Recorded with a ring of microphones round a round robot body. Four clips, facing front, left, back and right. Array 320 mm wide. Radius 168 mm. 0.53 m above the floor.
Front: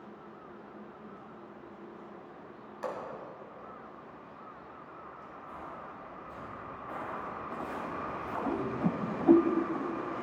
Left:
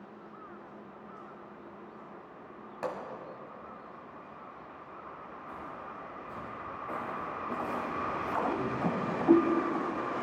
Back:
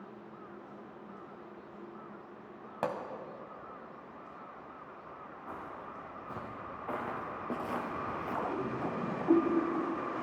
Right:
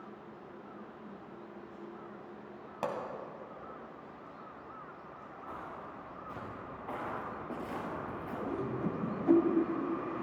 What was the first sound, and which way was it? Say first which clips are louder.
A pop: even, back 3 dB; 170° right.